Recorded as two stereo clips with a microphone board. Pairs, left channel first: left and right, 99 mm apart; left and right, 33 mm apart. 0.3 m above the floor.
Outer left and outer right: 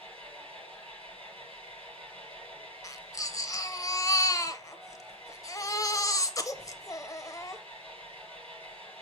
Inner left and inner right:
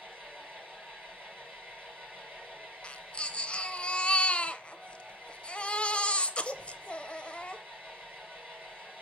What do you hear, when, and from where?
0.0 s an engine running: 80° right, 6.5 m
2.8 s a baby crying: 35° left (ahead or behind), 0.8 m